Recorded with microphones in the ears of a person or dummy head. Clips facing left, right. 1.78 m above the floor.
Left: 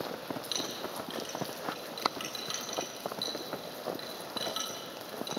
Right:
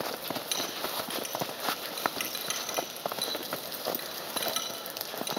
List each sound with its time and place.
0.5 s a clink: 35° right (ahead or behind), 2.5 m